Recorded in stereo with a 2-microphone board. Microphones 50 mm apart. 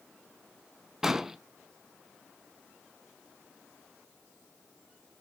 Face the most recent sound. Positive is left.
turn(degrees=-10)  # may be behind; listen again after turning